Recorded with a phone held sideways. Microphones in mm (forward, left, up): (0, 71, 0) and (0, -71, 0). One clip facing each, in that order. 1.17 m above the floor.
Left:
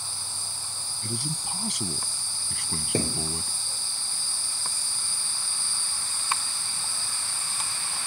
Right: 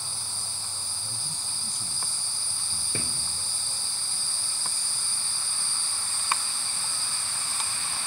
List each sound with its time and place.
1.0 s a man speaking: 85° left; by 3.6 s 90° left
2.9 s a thud: 45° left (ahead or behind)